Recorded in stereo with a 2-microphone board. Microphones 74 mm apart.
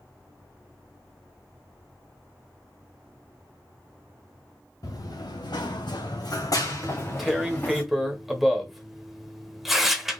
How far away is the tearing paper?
About 0.9 m.